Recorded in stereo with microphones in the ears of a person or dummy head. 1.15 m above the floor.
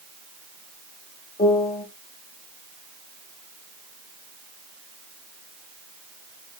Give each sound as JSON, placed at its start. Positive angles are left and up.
{"t": 1.4, "sound": "a piano", "side_deg": 35, "distance_m": 1.0}